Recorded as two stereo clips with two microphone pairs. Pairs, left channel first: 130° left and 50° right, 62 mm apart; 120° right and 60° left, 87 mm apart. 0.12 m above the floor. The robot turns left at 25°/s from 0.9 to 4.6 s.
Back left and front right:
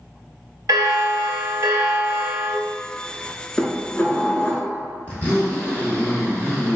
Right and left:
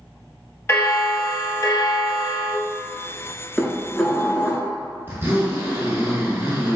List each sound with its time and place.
0.7 s a bell: 60° right, 0.5 m; by 2.6 s 100° right, 0.5 m
3.6 s dishes clattering: 165° left, 0.8 m; by 4.7 s 140° left, 0.8 m
5.1 s a zipper: 95° left, 1.5 m